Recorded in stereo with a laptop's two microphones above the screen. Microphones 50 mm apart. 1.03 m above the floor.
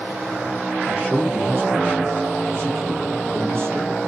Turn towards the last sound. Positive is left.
turn(degrees=-65)  # may be behind; listen again after turning